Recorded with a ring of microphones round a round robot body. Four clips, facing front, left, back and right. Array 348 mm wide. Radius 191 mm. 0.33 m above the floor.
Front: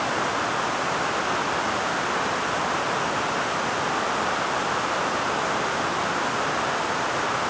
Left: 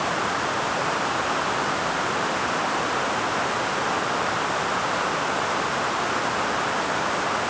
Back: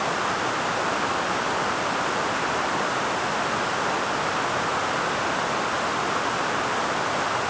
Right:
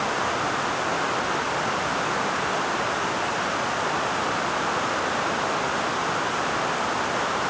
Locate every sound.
Only background noise.